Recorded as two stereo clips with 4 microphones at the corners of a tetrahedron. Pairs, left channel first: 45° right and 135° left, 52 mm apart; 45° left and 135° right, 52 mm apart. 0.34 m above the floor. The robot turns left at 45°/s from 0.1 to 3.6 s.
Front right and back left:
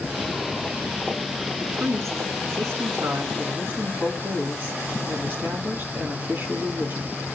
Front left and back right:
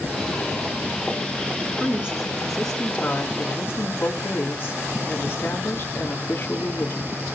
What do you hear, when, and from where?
1.6 s a woman speaking: 175° left, 3 m; by 7.2 s 85° left, 3 m